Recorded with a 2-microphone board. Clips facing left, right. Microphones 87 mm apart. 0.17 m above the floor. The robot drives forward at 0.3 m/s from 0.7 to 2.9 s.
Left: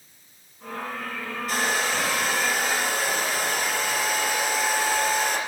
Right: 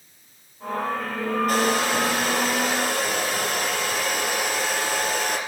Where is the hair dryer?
50° right (ahead or behind), 4.5 m.